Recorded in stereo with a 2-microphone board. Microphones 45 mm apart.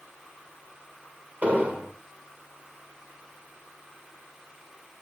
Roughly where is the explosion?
Right.